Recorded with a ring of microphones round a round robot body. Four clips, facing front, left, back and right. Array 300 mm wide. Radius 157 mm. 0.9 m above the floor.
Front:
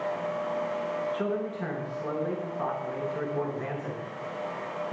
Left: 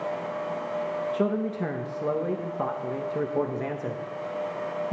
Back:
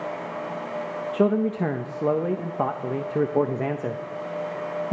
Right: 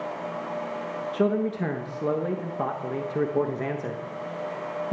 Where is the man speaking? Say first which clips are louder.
Right 5 dB, back 8 dB; 170° right, 1.2 m.